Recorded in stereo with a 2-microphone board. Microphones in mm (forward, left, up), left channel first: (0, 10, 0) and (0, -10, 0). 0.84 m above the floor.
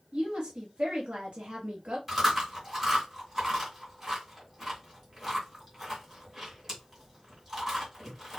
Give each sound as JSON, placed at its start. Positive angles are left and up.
{"t": 0.1, "sound": "a woman speaking", "side_deg": -60, "distance_m": 1.3}
{"t": 2.1, "sound": "chewing", "side_deg": -20, "distance_m": 2.0}